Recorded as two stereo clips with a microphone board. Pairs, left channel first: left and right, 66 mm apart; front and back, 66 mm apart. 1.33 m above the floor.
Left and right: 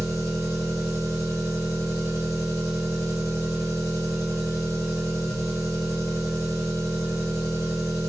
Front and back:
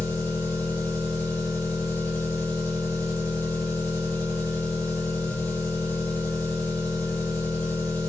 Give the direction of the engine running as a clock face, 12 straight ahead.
10 o'clock.